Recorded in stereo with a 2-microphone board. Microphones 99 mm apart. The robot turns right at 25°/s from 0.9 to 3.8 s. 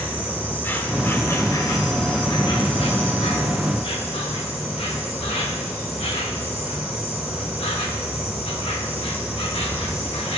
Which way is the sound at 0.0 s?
20° left.